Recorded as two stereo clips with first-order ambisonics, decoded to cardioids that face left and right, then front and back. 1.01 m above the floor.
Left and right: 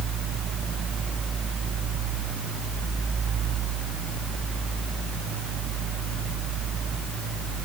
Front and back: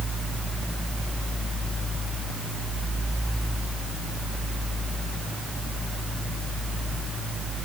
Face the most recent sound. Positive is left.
No sound to turn to.